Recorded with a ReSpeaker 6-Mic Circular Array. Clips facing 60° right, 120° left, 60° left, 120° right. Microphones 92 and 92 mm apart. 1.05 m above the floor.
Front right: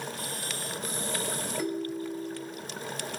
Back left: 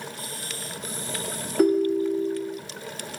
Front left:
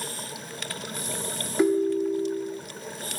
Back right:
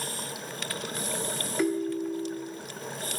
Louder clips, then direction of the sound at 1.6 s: Back left 14 dB, front left 6 dB; 125° left.